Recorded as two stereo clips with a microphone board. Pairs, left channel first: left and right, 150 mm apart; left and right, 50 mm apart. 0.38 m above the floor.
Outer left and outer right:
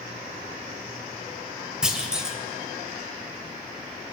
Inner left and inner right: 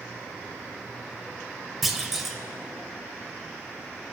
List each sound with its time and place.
1.8 s a clunk: 5° right (ahead or behind), 1.0 m